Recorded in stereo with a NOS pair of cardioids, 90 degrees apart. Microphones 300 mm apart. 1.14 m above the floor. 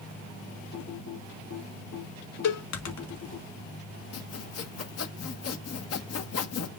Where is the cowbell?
55° left, 1.5 m.